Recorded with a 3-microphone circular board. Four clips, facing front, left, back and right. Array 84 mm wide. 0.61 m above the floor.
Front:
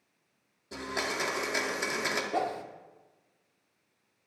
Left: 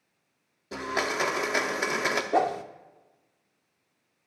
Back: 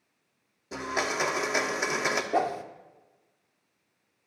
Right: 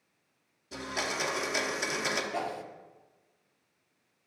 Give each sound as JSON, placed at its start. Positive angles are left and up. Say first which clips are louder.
{"t": 0.7, "sound": "a blender", "louder": "left 6 dB, back 4 dB", "azimuth_deg": 115, "distance_m": 1.1}
{"t": 2.3, "sound": "a whoosh", "louder": "left 10 dB, back 5 dB", "azimuth_deg": 110, "distance_m": 0.7}